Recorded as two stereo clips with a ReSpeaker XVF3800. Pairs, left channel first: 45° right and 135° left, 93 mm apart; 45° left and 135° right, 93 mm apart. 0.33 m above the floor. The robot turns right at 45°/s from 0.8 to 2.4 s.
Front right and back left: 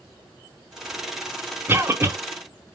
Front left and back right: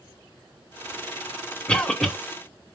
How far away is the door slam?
I don't hear a door slam.